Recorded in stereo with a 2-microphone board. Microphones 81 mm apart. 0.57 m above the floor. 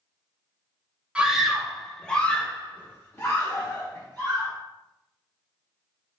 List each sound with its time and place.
1.1 s a scream: 10° right (ahead or behind), 0.9 m; by 4.5 s 35° left (ahead or behind), 1.5 m